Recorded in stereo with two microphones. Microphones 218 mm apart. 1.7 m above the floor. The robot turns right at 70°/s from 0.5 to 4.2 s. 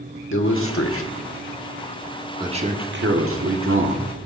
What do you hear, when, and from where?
0.3 s a man speaking: 60° left (ahead or behind), 1.2 m; by 4.1 s 40° right (ahead or behind), 1.2 m